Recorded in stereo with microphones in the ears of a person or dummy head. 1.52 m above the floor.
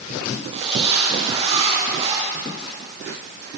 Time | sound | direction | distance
0.5 | a zipper | 30° right (ahead or behind) | 8 m